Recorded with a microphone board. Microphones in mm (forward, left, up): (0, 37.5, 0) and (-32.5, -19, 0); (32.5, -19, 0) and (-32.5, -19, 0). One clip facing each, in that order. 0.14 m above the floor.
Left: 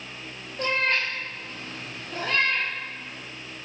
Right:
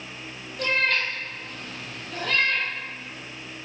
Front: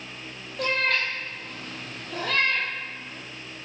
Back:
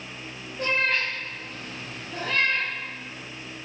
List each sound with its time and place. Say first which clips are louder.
0.6 s a cat meowing: right 1 dB, even; straight ahead, 1.0 m